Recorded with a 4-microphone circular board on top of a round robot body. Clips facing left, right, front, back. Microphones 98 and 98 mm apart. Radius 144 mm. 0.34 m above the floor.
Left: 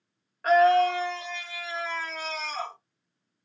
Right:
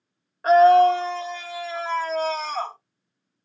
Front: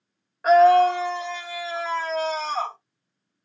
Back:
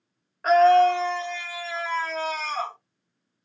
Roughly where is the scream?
Right.